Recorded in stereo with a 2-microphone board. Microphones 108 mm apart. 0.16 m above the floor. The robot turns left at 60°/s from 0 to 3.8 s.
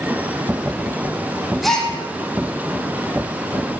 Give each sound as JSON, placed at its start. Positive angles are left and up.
{"t": 1.6, "sound": "a gasp", "side_deg": 0, "distance_m": 4.0}